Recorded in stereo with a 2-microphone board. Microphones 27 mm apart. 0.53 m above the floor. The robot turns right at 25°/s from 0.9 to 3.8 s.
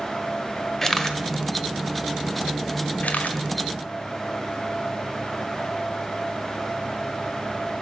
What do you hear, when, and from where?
0.8 s a camera shutter: 15° left (ahead or behind), 1.2 m; by 3.4 s 70° left (ahead or behind), 1.2 m